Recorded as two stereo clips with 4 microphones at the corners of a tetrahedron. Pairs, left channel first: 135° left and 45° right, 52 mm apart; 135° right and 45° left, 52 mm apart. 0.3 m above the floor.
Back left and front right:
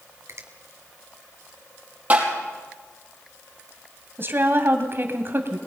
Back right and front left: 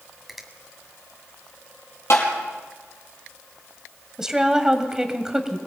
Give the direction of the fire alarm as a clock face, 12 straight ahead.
I don't hear a fire alarm.